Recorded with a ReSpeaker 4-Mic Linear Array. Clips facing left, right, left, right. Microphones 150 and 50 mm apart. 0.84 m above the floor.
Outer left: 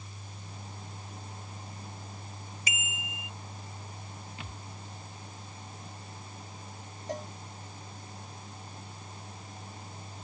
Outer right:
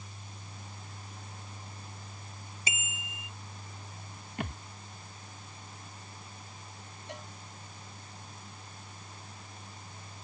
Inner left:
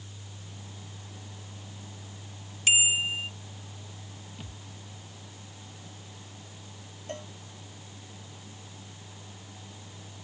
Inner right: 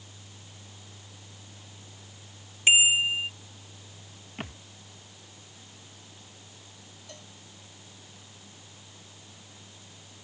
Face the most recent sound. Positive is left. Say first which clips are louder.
# outer left 9 dB, inner left 11 dB
turn(degrees=40)  # may be behind; listen again after turning